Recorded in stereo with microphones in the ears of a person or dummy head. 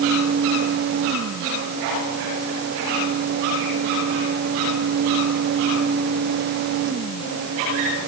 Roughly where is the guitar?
I don't hear a guitar.